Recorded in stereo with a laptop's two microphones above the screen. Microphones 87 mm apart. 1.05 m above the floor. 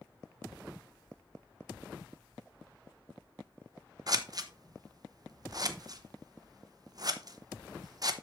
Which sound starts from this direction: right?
Scissors, at 4.1 s.